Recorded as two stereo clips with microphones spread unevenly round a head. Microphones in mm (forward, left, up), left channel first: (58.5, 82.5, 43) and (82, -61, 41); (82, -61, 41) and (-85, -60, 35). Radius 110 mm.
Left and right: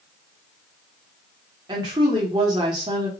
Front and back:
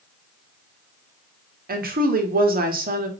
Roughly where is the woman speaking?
Behind right.